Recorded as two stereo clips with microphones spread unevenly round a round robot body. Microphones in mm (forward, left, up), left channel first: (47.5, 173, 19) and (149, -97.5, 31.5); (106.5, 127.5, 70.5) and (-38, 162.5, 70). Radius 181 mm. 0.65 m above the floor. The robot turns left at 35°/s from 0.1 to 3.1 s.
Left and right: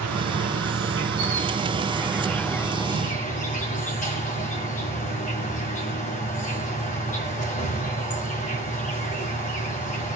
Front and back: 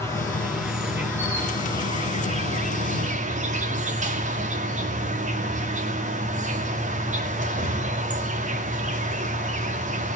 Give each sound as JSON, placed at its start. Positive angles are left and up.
{"t": 0.0, "sound": "an insect", "azimuth_deg": -85, "distance_m": 1.9}